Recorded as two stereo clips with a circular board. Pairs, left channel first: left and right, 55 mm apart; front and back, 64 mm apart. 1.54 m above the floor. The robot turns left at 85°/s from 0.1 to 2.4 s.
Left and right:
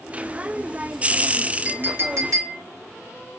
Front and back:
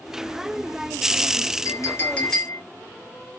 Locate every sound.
1.6 s a clink: 30° right, 2.5 m; by 2.6 s 90° right, 2.5 m